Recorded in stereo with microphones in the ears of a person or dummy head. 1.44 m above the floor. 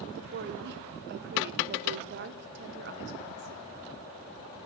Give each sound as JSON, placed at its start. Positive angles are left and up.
{"t": 0.2, "sound": "a woman speaking", "side_deg": -55, "distance_m": 0.9}